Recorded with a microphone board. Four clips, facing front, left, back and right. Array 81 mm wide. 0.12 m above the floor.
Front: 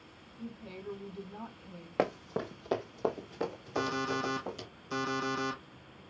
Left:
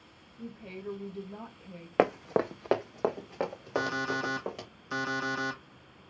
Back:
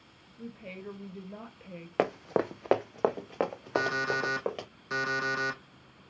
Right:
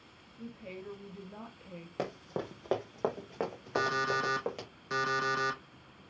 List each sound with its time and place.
0.4 s a woman speaking: straight behind, 2.5 m
2.0 s running footsteps: 105° left, 0.6 m; by 4.7 s 175° right, 2.5 m
3.8 s an alarm clock: 135° right, 3 m